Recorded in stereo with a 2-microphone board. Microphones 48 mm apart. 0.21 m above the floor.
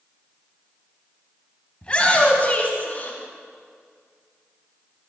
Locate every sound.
1.8 s a shout: 25° left (ahead or behind), 1.3 m; by 3.2 s 35° left (ahead or behind), 1.8 m